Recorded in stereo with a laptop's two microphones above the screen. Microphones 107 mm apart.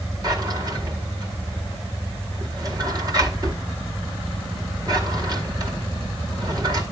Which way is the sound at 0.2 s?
40° right (ahead or behind).